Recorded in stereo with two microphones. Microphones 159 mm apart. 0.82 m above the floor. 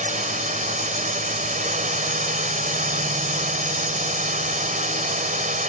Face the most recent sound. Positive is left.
turn(degrees=-55)  # may be behind; listen again after turning